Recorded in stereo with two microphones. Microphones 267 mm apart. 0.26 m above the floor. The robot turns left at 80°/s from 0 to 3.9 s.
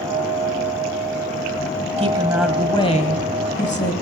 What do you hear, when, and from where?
2.0 s a woman speaking: 140° right, 1.3 m; by 3.9 s 65° left, 1.3 m